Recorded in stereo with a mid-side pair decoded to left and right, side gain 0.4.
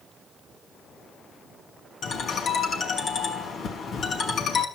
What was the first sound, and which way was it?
A ringtone, 65° left.